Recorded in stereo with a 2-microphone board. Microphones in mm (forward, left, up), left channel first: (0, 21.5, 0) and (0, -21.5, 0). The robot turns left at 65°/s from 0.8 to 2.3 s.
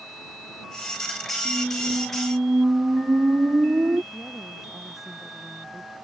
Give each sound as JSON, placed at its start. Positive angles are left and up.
{"t": 1.4, "sound": "a squeak", "azimuth_deg": -10}
{"t": 4.1, "sound": "a woman speaking", "side_deg": -10}